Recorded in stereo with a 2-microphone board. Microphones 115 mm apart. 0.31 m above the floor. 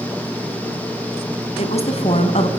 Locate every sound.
1.6 s a woman speaking: 65° left (ahead or behind), 2.5 m